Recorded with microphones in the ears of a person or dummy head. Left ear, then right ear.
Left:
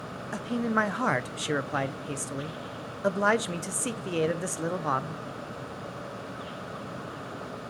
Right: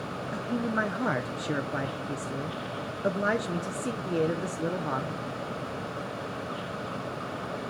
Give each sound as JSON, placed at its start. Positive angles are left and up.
{"t": 0.3, "sound": "a man speaking", "side_deg": 40, "distance_m": 0.6}